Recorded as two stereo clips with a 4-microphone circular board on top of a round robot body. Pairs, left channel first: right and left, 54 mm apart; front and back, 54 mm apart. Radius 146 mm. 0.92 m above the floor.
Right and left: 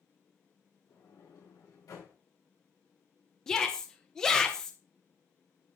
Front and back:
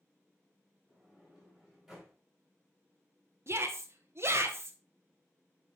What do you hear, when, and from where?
0.9 s a sliding door: 90° right, 4 m
3.5 s a shout: 170° right, 1.2 m